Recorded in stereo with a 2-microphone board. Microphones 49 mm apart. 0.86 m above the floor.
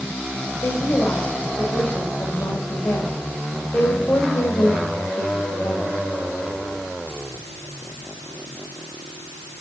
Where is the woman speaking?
80° left, 3.5 m.